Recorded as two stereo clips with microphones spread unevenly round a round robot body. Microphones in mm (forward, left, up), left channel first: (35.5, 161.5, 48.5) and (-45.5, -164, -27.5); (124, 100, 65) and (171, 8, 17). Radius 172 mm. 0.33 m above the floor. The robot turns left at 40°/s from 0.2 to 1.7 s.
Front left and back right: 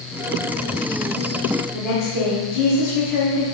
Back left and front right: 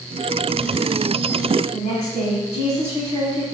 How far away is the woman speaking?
About 2.5 m.